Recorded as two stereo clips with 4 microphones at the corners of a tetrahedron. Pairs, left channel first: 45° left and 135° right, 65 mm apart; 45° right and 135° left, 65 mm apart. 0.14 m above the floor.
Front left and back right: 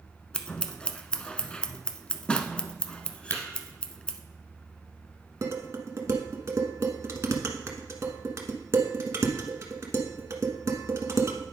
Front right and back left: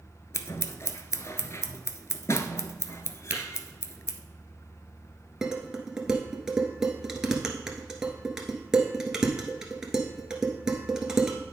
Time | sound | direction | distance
0.3 | scissors | 25° right | 0.6 m
3.3 | tapping | 85° left | 2.5 m
5.4 | dishes clattering | 145° right | 1.2 m